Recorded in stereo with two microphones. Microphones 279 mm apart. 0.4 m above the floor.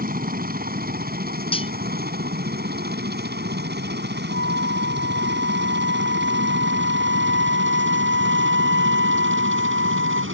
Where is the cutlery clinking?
20° left (ahead or behind).